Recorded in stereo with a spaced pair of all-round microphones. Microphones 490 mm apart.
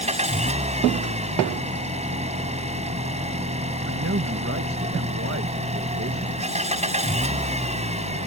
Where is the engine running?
15° right (ahead or behind).